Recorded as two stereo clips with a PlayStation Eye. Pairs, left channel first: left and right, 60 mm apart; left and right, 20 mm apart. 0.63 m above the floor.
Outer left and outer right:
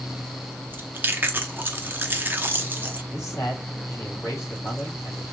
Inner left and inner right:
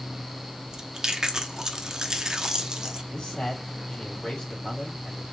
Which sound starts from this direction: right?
Chewing, at 0.7 s.